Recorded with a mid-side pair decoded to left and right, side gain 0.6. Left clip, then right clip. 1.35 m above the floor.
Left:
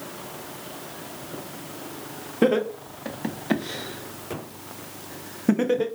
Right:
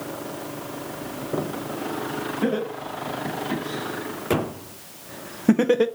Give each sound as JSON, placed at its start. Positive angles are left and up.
{"t": 2.4, "sound": "laughter", "azimuth_deg": 55, "distance_m": 1.7}